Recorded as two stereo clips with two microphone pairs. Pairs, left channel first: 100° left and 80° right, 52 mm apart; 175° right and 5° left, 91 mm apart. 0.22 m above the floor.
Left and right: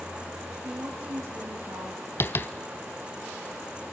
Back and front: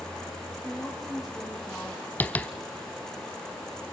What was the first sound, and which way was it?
A woman speaking, 80° right.